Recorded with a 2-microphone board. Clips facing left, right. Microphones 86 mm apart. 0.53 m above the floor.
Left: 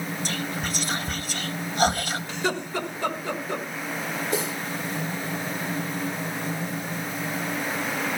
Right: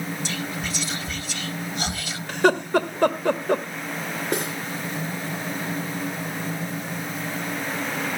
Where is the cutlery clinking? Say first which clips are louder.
Right 2 dB; 55° right (ahead or behind), 4 m.